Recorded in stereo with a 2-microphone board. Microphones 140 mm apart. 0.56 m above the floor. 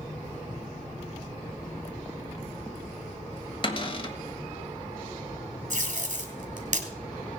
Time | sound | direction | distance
3.6 | a cupboard door | 35° left (ahead or behind) | 1.5 m
5.7 | tape being pulled | 60° right (ahead or behind) | 2.5 m